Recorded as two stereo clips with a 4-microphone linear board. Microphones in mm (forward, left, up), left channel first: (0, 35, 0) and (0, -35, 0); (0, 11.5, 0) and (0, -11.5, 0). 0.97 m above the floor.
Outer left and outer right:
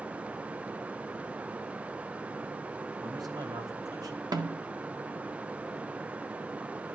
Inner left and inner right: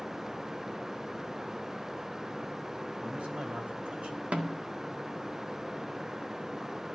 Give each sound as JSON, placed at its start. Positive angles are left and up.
{"t": 3.0, "sound": "a man speaking", "side_deg": -75, "distance_m": 4.0}
{"t": 4.3, "sound": "a snare drum", "side_deg": -80, "distance_m": 1.7}